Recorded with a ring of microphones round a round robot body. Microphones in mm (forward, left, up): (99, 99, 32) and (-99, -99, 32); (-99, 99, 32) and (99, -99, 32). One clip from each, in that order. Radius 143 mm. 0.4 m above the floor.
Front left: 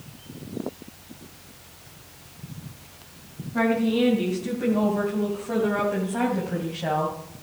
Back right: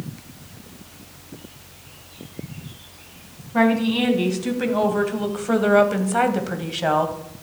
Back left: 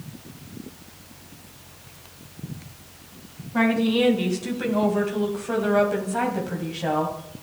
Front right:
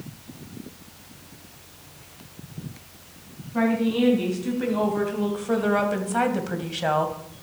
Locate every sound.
3.5 s a woman speaking: 165° right, 3.5 m; by 7.2 s 90° right, 2.5 m